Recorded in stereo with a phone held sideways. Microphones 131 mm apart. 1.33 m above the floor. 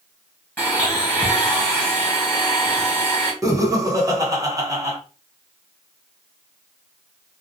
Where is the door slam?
I don't hear a door slam.